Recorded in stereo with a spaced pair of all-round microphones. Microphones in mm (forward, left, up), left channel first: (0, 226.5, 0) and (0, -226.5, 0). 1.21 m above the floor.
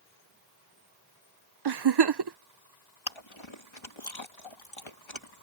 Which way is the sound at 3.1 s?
70° left (ahead or behind).